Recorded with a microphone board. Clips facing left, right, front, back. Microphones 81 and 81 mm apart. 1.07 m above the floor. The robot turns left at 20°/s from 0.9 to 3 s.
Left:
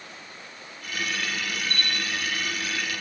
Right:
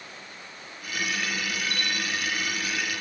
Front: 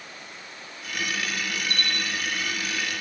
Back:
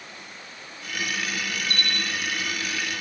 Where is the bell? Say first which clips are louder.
Even, even; 75° left, 2.5 m; by 2.3 s 65° left, 2.5 m.